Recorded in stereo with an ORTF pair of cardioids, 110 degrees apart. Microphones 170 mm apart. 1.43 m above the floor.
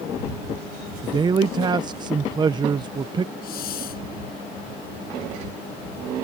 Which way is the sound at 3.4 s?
60° left.